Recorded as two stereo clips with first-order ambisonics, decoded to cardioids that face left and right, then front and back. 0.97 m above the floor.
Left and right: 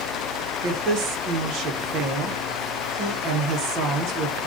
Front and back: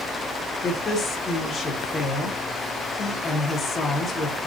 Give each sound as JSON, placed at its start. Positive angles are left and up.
{"t": 0.6, "sound": "a woman speaking", "azimuth_deg": -65, "distance_m": 0.8}